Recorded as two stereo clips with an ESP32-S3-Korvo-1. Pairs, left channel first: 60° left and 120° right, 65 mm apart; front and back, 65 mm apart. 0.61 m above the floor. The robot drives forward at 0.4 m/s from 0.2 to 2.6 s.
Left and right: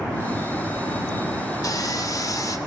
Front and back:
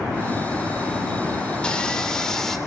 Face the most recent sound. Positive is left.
turn(degrees=85)